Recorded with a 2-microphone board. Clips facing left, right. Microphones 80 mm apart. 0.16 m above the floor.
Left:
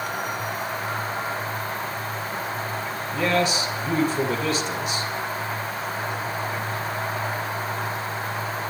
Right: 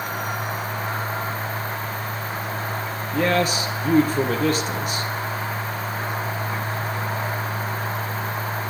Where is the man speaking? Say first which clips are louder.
Right 2 dB; 40° right (ahead or behind), 3.5 m.